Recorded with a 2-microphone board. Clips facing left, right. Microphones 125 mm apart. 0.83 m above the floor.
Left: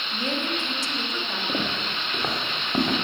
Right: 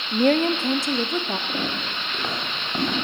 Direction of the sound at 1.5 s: 25° left (ahead or behind).